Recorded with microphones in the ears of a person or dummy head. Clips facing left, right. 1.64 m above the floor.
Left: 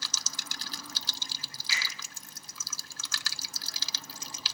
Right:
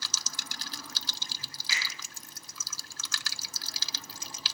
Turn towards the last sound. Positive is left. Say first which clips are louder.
# even
turn(degrees=-35)  # may be behind; listen again after turning